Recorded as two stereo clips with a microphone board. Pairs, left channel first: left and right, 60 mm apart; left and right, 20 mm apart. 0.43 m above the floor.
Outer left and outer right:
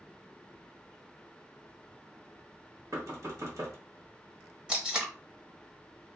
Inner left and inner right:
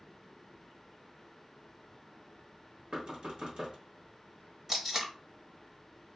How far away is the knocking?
About 1.0 m.